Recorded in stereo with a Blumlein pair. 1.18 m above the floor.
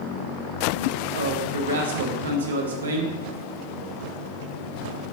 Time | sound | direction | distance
1.1 | a man speaking | 65° right | 0.9 m